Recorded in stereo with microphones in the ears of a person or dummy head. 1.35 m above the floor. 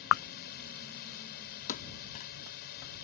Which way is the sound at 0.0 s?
55° left (ahead or behind).